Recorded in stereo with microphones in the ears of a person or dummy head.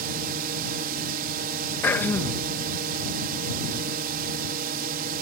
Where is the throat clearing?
15° left (ahead or behind).